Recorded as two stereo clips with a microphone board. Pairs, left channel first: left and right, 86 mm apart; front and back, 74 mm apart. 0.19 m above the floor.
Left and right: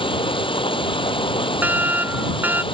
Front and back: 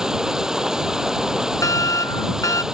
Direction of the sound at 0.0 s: 100° left.